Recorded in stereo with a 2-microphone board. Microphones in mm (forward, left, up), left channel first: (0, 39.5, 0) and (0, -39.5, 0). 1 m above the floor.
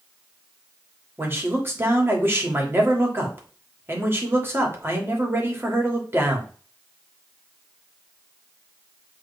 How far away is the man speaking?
About 2.5 m.